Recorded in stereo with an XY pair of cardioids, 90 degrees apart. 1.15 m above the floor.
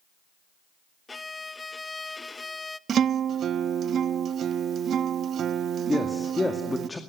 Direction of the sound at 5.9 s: 20° left.